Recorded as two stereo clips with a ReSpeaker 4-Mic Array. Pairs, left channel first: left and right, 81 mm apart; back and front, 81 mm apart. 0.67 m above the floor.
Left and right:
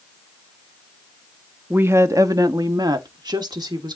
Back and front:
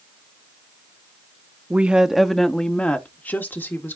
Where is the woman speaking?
50° right, 0.6 m; by 4.0 s 120° right, 1.7 m.